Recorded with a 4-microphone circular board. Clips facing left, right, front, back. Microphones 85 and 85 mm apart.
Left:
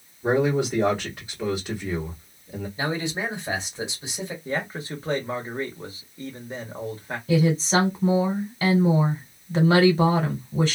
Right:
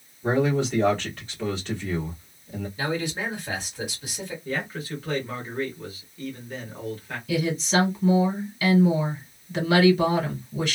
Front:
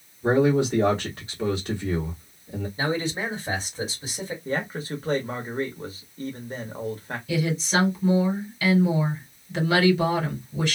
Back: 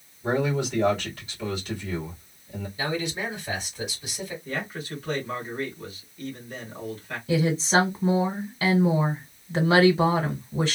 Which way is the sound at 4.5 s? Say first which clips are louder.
Left 1 dB, front 6 dB; 40° left.